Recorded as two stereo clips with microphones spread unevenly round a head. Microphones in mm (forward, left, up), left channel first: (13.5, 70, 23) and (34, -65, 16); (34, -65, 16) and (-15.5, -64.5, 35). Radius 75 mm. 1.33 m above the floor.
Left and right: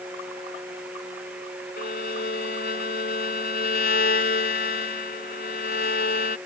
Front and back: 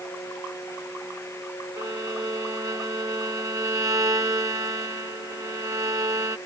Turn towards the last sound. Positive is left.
turn(degrees=130)